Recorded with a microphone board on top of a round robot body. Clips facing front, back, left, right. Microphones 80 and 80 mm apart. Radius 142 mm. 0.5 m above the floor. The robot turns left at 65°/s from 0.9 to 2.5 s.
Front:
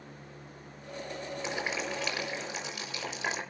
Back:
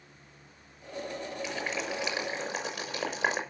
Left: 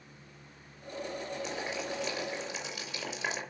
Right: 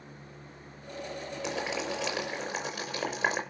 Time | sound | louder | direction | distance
1.4 | boiling | front 1 dB, right 7 dB | 65° right | 6 m